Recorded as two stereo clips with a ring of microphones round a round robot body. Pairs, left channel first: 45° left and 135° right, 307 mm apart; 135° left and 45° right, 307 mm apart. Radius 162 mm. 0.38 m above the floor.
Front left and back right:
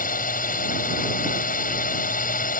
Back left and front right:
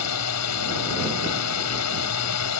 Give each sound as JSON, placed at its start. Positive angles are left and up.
{"t": 0.0, "sound": "a drone", "azimuth_deg": 105}